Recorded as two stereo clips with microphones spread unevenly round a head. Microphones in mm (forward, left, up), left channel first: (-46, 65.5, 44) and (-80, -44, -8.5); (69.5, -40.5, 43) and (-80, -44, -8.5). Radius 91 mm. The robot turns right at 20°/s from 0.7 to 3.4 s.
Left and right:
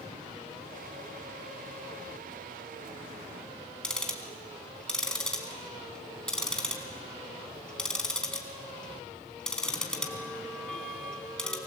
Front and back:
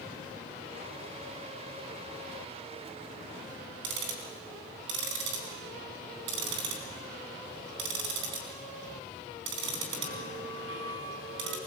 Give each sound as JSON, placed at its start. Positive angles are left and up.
{"t": 3.8, "sound": "ticking", "azimuth_deg": 150, "distance_m": 3.5}